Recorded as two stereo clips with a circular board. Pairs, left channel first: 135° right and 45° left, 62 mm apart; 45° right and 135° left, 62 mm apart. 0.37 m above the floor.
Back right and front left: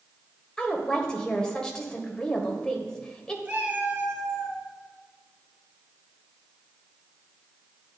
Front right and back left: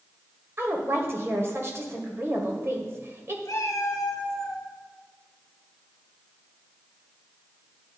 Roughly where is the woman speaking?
Behind left.